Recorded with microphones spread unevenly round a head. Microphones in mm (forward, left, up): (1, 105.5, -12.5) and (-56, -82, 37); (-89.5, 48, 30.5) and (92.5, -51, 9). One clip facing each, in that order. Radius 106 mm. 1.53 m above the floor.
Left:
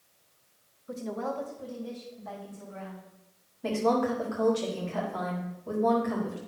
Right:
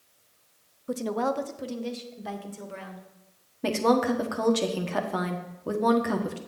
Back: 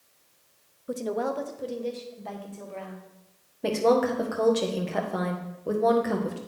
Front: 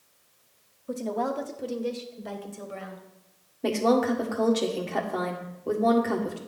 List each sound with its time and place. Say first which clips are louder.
0.9 s a woman speaking: right 6 dB, back 1 dB; 135° right, 0.8 m; by 3.1 s 95° right, 1.9 m
3.6 s a woman speaking: right 3 dB, back 1 dB; 120° right, 1.5 m